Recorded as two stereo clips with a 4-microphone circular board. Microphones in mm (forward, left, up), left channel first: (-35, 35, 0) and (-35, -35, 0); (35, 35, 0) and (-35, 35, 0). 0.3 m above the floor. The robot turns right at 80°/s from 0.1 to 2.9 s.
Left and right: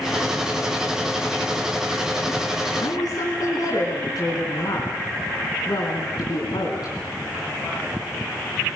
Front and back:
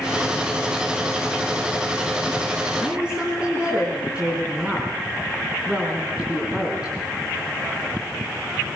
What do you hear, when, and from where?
2.8 s a woman speaking: 95° left, 4 m; by 6.9 s 105° left, 4 m